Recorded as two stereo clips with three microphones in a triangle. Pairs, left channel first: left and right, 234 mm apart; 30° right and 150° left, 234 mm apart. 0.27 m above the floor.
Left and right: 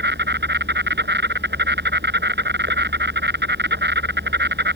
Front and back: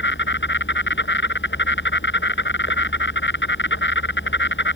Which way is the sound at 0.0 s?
55° right.